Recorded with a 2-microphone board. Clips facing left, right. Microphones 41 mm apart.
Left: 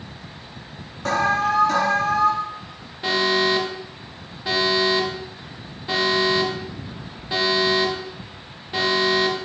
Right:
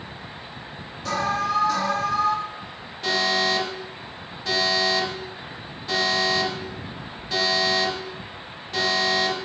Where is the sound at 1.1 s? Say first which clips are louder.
Left 4 dB; 50° left (ahead or behind), 2.5 m.